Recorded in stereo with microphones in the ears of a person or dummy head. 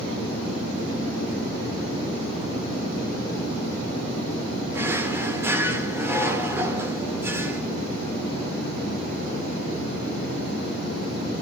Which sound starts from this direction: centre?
A drawer, at 4.7 s.